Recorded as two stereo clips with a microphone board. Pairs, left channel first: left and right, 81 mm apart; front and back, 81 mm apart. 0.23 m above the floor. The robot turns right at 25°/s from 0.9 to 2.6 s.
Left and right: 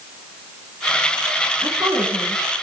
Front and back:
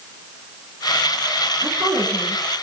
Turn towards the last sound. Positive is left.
turn(degrees=-120)